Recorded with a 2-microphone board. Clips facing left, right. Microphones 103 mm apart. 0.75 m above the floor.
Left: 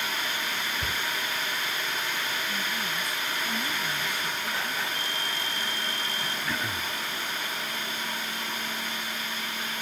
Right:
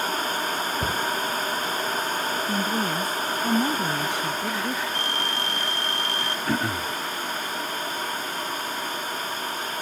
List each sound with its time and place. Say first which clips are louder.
0.8 s a cupboard door: right 6 dB; 40° right (ahead or behind)
2.5 s a woman speaking: right 8 dB; 65° right (ahead or behind)
5.0 s a phone ringing: right 5 dB; 65° right (ahead or behind)
6.5 s throat clearing: right 9 dB; 50° right (ahead or behind)